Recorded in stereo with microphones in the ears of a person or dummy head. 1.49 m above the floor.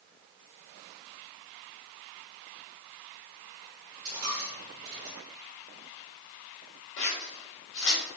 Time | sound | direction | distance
4.0 | a dropped coin | 30° right (ahead or behind) | 1.8 m
7.0 | scissors | 60° left (ahead or behind) | 1.9 m